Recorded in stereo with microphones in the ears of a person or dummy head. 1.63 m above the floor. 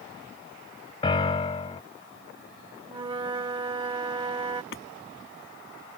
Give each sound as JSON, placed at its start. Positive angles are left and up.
{"t": 1.0, "sound": "a piano", "side_deg": 30}
{"t": 2.9, "sound": "a flute", "side_deg": -25}
{"t": 4.7, "sound": "hammering", "side_deg": 70}